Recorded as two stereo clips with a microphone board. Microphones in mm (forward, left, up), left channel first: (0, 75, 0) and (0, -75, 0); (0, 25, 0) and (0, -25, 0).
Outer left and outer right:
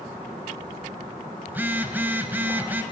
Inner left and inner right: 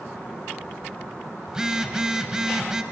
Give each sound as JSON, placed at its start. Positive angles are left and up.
{"t": 1.5, "sound": "a phone buzzing", "side_deg": -15, "distance_m": 1.1}